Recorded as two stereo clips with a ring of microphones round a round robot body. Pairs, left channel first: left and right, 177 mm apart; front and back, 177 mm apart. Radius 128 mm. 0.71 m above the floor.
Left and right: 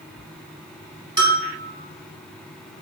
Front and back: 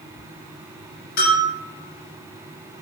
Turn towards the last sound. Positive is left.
turn(degrees=-25)